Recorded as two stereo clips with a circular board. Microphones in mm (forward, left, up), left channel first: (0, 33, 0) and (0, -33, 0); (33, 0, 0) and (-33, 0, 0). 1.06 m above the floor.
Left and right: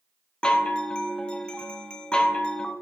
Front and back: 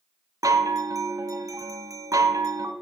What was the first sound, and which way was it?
A chime, 165° left.